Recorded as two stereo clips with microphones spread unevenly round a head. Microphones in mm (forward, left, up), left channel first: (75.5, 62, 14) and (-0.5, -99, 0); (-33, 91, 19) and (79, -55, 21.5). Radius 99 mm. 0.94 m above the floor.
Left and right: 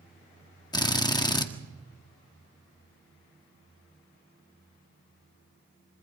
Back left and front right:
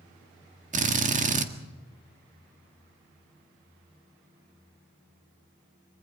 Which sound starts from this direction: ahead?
A drill, at 0.7 s.